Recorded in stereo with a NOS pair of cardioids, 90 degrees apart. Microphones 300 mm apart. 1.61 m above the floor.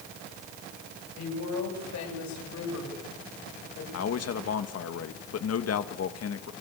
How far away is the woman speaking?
About 9.5 m.